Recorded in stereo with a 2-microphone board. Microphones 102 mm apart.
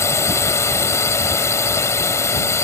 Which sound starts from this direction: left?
A drone, at 0.0 s.